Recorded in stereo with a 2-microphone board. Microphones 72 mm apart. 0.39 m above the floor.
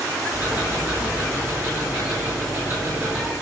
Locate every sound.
0.3 s ticking: 35° right (ahead or behind), 4 m